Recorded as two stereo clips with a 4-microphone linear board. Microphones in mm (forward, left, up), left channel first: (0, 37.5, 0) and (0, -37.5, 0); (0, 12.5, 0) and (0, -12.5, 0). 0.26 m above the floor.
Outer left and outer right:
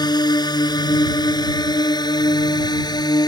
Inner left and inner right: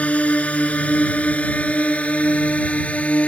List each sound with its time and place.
0.0 s a drone: 70° left (ahead or behind); by 3.3 s 65° left (ahead or behind)